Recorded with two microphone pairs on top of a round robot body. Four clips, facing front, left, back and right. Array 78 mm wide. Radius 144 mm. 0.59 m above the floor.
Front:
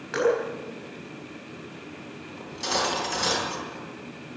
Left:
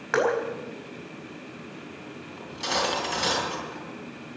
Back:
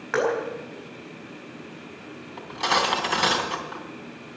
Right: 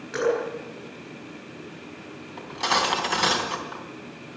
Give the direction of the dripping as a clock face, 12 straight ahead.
8 o'clock.